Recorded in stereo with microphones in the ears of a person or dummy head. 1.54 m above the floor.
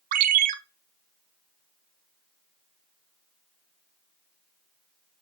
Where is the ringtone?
45° right (ahead or behind), 0.6 m.